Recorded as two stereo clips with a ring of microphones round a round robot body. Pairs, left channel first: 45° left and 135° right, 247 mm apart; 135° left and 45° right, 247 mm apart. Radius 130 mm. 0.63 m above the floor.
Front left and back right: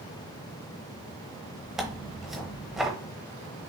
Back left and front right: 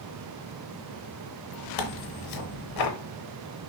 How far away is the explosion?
I don't hear an explosion.